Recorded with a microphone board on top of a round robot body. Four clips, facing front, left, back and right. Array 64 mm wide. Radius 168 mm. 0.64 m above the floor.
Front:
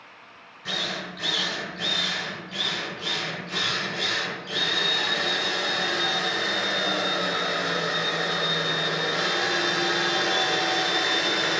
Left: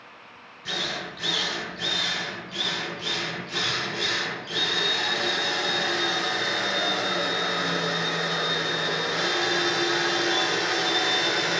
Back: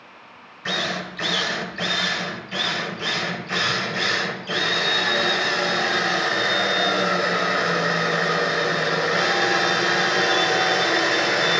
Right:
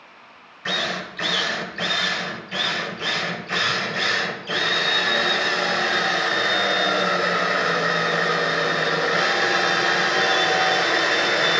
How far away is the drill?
About 1.3 m.